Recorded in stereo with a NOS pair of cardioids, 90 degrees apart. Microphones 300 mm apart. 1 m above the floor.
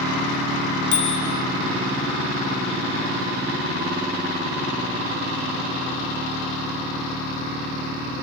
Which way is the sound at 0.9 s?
70° left.